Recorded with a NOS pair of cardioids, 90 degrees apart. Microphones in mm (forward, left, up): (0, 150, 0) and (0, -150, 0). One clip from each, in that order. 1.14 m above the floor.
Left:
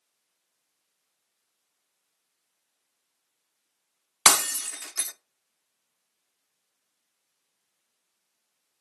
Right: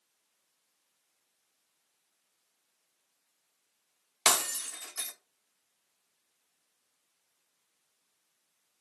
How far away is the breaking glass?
About 0.6 m.